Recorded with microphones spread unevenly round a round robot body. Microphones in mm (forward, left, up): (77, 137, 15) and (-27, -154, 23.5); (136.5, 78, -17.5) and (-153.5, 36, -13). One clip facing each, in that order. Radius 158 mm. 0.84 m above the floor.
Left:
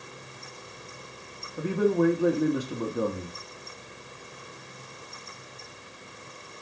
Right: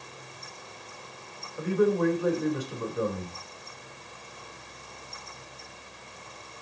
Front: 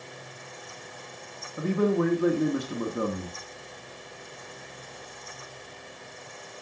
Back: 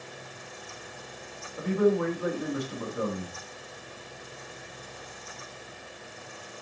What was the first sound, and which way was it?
A man speaking, 30° left.